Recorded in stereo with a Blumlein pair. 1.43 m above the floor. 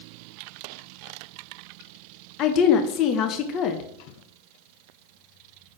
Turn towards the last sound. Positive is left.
turn(degrees=35)